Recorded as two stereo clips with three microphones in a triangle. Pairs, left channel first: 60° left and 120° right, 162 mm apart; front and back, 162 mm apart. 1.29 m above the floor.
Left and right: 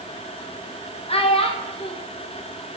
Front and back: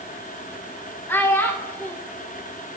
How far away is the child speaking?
About 0.5 m.